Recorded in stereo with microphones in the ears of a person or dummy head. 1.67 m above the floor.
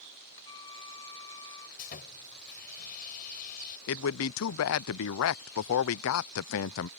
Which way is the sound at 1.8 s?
45° left (ahead or behind).